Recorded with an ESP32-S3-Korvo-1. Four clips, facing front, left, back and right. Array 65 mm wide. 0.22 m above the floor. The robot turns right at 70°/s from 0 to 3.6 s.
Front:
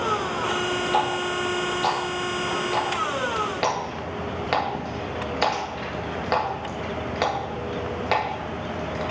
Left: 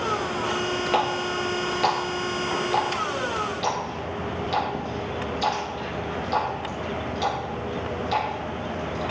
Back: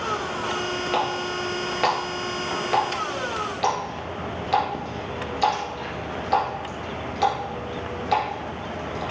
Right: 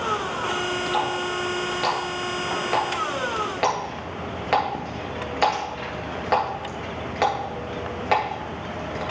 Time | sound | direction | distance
0.9 | a running tap | 120° left | 3 m